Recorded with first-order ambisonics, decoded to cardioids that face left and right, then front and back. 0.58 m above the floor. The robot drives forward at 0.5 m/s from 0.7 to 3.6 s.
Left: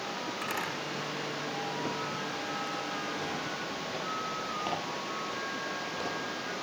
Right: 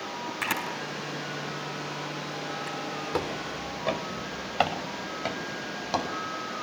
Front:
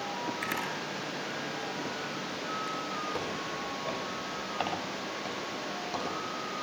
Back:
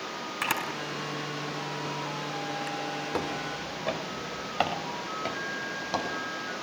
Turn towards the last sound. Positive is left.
turn(degrees=-125)